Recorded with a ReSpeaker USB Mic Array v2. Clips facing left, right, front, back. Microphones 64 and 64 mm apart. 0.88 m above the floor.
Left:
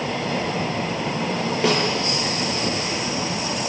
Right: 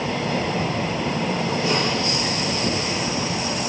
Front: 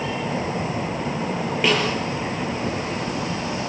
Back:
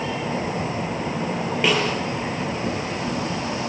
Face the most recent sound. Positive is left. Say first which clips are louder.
# left 4 dB, even
turn(degrees=90)